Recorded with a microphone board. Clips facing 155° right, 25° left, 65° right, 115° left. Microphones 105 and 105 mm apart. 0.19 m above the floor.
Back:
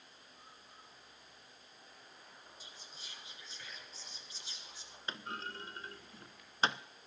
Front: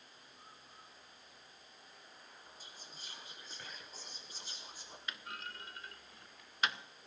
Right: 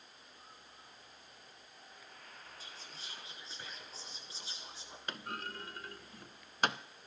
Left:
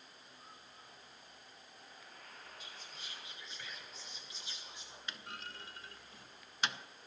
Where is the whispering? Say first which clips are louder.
Even, right 1 dB; 15° right, 2.5 m.